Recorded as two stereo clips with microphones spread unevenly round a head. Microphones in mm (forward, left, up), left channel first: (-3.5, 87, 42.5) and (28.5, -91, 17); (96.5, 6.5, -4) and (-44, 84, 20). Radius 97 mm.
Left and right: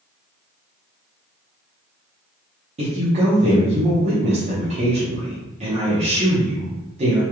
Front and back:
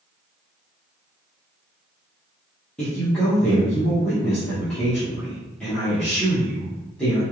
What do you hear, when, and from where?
2.8 s a woman speaking: 105° right, 1.0 m